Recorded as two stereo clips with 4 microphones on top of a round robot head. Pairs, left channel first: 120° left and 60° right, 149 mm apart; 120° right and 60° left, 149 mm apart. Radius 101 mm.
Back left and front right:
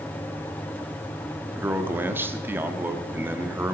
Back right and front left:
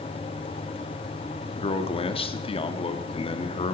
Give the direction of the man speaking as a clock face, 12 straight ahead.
4 o'clock.